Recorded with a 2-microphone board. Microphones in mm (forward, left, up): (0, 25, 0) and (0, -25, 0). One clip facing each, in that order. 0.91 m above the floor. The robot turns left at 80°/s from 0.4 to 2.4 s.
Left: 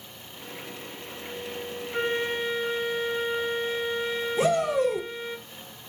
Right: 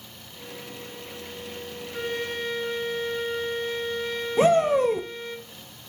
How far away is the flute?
About 0.7 m.